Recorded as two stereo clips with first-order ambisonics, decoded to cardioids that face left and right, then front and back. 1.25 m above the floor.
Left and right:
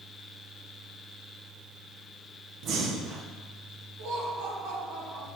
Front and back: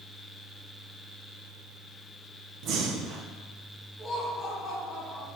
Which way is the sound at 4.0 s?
90° right.